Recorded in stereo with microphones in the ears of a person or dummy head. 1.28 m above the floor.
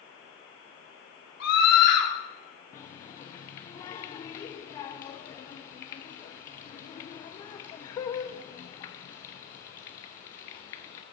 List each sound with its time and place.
1.4 s a scream: 75° left (ahead or behind), 3.5 m
2.7 s a running tap: 20° left (ahead or behind), 0.8 m